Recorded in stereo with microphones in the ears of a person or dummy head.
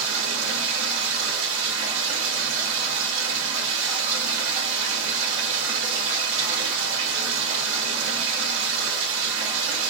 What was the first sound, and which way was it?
Running water, 70° right (ahead or behind).